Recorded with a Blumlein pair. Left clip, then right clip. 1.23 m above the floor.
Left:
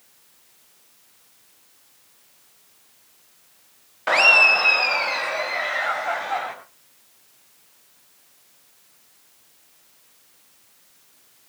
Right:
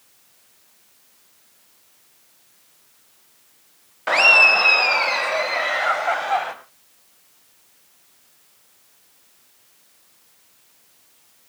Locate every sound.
4.1 s laughter: straight ahead, 0.9 m; by 6.5 s 20° right, 4 m